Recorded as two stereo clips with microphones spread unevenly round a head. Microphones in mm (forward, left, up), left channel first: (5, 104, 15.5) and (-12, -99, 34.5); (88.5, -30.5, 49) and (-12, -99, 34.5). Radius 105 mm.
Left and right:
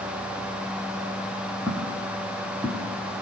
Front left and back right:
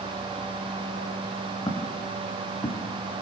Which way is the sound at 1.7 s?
20° right.